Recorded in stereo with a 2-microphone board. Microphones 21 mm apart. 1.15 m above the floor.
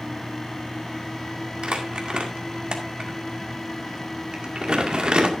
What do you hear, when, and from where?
1.6 s crumpling: 45° right (ahead or behind), 2 m